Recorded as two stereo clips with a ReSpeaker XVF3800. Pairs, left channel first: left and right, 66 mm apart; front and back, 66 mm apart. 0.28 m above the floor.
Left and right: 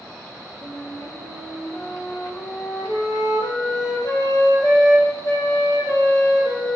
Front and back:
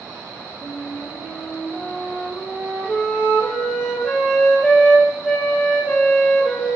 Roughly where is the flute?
Left.